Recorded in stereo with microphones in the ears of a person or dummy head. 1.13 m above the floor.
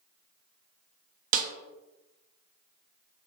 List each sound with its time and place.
1.3 s a snare drum: 40° right (ahead or behind), 0.5 m